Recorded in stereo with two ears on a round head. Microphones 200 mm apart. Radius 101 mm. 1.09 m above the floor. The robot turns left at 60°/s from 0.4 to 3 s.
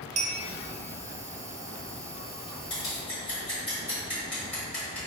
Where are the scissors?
25° left (ahead or behind), 1.8 m; by 5.0 s 5° left (ahead or behind), 1.8 m.